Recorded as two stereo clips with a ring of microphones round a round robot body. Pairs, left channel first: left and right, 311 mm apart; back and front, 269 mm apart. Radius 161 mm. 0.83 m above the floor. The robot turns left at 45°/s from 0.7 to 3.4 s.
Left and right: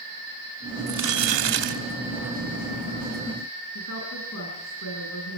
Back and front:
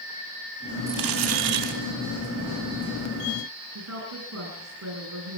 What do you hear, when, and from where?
0.9 s crumpling: 30° right, 3.5 m; by 1.8 s 75° right, 3.5 m
3.8 s a woman speaking: 40° left, 8 m